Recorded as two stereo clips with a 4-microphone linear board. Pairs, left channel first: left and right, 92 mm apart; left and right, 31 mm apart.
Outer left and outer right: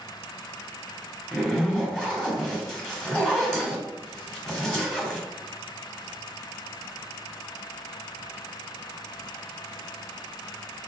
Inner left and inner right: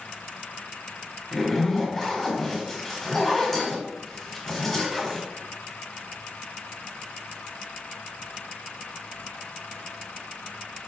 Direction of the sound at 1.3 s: 5° left (ahead or behind).